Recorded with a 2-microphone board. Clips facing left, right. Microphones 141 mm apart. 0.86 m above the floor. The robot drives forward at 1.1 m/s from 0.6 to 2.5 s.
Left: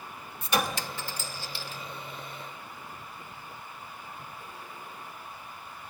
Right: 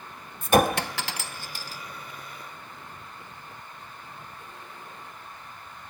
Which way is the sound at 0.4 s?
50° right (ahead or behind).